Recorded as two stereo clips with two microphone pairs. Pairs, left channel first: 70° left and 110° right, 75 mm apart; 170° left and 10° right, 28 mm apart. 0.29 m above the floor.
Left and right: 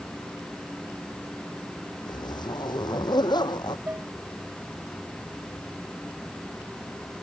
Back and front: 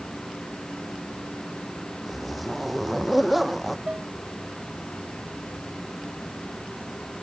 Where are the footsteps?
No footsteps in this recording.